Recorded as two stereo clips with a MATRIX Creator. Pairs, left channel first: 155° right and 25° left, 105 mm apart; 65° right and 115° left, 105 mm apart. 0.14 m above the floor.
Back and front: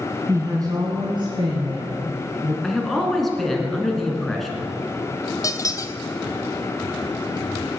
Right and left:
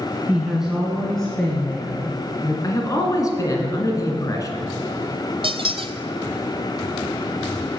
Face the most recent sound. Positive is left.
turn(degrees=145)